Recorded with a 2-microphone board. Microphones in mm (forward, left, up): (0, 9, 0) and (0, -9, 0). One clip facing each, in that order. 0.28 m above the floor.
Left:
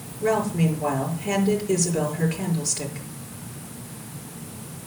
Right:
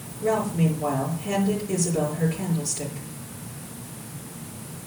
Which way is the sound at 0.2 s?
45° left (ahead or behind).